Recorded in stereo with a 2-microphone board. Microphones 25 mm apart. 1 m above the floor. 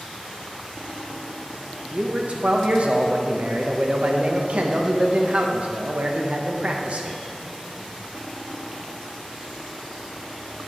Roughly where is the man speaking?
Right.